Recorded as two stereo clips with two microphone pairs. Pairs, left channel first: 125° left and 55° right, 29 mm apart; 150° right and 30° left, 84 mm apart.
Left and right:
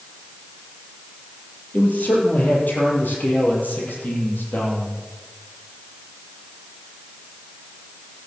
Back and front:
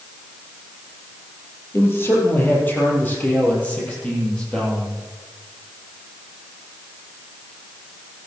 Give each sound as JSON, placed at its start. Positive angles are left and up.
{"t": 1.7, "sound": "a man speaking", "azimuth_deg": 155, "distance_m": 6.5}